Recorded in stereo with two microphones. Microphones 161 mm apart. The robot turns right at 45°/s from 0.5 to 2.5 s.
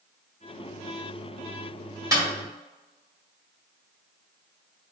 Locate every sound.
2.1 s a snare drum: 20° right (ahead or behind), 1.9 m; by 2.3 s 15° right (ahead or behind), 1.9 m